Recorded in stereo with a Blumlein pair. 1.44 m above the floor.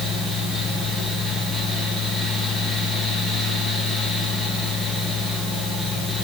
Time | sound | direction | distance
0.0 | a fan | straight ahead | 2.5 m